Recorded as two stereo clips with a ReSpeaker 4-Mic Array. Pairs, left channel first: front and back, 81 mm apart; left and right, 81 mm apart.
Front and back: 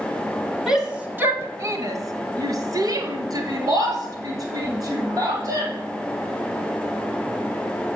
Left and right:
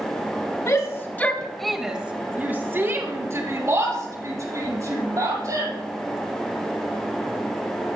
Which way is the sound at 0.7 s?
95° left.